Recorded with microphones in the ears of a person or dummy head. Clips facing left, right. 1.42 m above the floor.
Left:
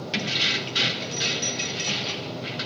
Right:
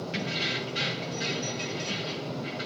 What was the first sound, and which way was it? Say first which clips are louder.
Keys jangling: left 4 dB; 65° left (ahead or behind).